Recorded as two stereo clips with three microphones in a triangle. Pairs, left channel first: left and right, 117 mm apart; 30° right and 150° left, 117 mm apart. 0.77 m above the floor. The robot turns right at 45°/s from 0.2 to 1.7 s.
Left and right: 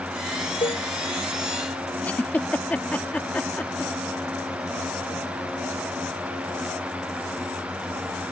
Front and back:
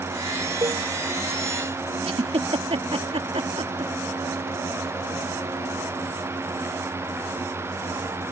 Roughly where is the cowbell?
Left.